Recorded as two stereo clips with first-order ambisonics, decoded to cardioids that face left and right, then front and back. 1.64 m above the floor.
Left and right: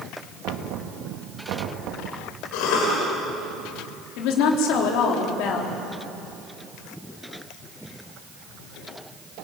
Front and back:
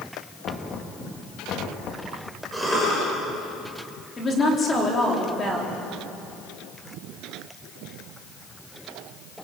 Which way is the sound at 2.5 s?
90° left.